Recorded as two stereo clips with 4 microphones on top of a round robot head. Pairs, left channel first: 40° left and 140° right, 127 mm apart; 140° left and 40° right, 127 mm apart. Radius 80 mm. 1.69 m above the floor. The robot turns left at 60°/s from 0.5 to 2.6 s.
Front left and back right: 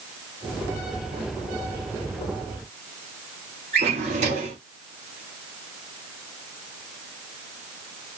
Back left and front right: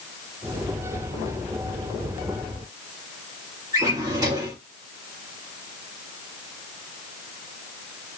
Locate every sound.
3.7 s a drawer: 105° right, 1.3 m